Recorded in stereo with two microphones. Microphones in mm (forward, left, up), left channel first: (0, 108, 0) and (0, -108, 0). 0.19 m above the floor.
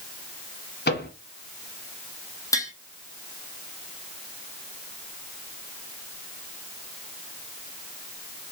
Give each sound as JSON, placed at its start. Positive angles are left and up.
{"t": 0.9, "sound": "a microwave", "side_deg": 50, "distance_m": 1.2}
{"t": 2.5, "sound": "tapping", "side_deg": 15, "distance_m": 1.4}